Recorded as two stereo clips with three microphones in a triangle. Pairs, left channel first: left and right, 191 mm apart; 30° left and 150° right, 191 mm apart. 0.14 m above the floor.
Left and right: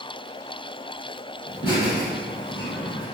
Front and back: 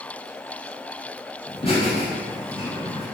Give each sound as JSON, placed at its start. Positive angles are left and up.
{"t": 1.5, "sound": "laughter", "azimuth_deg": 55, "distance_m": 1.2}